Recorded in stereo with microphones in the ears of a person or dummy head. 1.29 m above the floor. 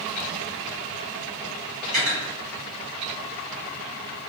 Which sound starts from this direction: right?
Cutlery clinking, at 1.9 s.